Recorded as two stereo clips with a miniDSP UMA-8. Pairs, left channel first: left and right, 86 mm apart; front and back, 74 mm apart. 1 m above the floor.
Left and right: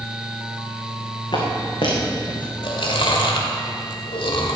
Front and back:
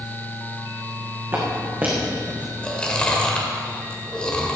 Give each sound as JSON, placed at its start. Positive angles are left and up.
{"t": 1.3, "sound": "footsteps", "azimuth_deg": 120, "distance_m": 4.0}
{"t": 2.6, "sound": "chewing", "azimuth_deg": 75, "distance_m": 1.9}